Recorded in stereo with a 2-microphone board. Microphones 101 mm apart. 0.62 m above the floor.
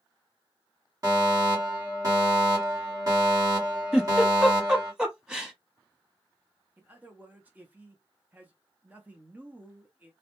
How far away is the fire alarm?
About 1.7 m.